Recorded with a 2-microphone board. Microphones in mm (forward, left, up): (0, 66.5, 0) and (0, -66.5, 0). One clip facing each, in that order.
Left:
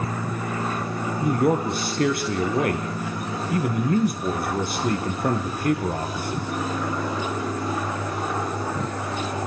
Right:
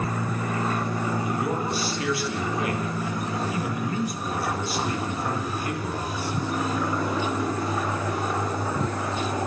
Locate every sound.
1.2 s a man speaking: 55° left (ahead or behind), 3.5 m